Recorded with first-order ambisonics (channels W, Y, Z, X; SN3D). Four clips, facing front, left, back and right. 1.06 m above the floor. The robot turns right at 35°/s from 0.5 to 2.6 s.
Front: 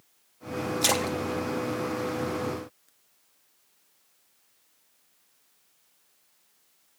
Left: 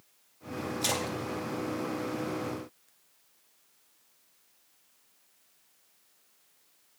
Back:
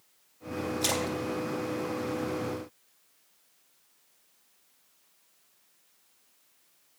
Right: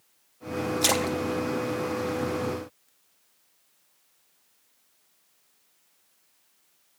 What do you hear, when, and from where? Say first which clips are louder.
0.8 s a splash: right 7 dB, front 5 dB; 60° right, 0.6 m; by 2.9 s 5° left, 0.6 m